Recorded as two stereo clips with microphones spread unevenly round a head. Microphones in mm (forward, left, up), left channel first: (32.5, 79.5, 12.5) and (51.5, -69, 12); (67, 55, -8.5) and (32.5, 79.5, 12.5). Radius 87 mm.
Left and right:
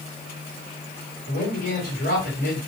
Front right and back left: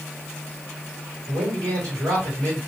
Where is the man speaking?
140° left, 2 m.